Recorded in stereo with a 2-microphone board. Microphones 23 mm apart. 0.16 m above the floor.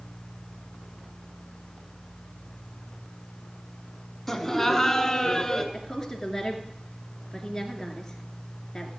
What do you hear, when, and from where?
4.3 s laughter: 5° left (ahead or behind), 1.3 m; by 5.6 s 15° left (ahead or behind), 1.9 m
5.7 s a woman speaking: 20° left (ahead or behind), 2 m